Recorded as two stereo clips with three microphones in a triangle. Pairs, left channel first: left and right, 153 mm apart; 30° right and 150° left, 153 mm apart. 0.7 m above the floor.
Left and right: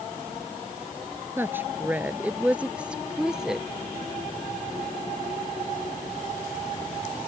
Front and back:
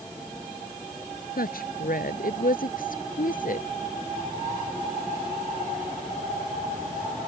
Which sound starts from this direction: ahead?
A woman speaking, at 1.4 s.